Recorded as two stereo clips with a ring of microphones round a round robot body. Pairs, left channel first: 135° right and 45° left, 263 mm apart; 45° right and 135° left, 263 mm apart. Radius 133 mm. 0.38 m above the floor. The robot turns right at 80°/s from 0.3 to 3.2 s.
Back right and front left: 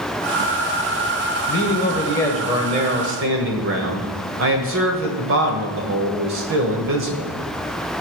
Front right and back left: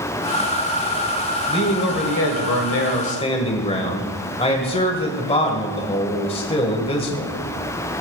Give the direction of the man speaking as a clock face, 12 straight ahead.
4 o'clock.